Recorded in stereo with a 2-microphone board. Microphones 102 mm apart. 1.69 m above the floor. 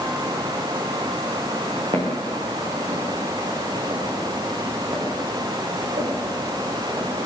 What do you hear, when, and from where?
1.9 s footsteps: 60° right (ahead or behind), 7 m; by 7.1 s 80° right, 11 m